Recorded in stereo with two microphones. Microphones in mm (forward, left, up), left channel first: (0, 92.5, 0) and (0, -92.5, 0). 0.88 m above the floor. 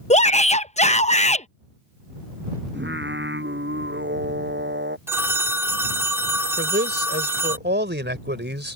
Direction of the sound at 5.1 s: 15° right (ahead or behind).